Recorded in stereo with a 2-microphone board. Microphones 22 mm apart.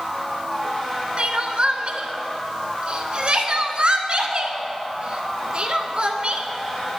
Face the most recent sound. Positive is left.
turn(degrees=-55)  # may be behind; listen again after turning